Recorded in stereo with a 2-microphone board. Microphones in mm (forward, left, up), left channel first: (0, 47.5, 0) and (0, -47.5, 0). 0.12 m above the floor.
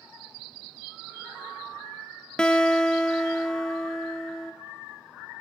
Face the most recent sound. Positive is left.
turn(degrees=10)  # may be behind; listen again after turning